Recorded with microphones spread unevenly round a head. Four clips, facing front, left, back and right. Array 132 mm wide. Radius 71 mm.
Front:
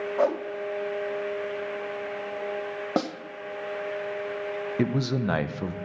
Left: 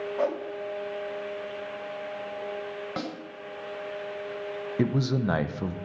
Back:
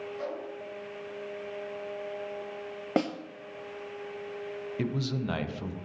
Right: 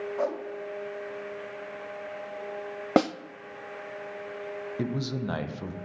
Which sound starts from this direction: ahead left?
A man speaking, at 4.8 s.